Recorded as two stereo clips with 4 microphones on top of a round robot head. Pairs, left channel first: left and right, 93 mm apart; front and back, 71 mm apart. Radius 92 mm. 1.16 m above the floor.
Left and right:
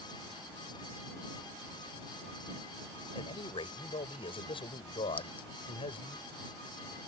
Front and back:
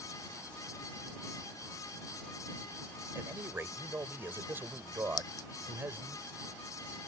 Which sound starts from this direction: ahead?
A clink, at 5.2 s.